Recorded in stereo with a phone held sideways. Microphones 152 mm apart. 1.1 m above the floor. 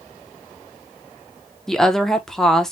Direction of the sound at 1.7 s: 5° left (ahead or behind).